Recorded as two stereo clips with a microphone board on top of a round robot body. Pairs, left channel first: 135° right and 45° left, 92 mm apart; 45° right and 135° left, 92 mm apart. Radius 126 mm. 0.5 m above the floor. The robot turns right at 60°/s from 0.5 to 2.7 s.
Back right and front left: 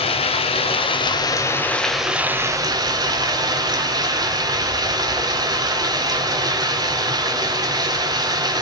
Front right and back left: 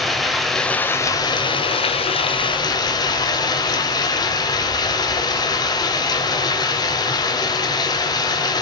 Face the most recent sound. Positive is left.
turn(degrees=0)